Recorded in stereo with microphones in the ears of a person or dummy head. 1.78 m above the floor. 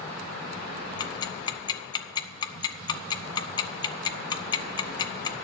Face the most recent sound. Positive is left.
turn(degrees=30)  # may be behind; listen again after turning